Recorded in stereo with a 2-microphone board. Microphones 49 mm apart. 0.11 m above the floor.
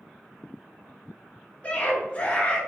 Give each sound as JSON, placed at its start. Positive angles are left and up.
{"t": 1.6, "sound": "a scream", "side_deg": 25, "distance_m": 1.3}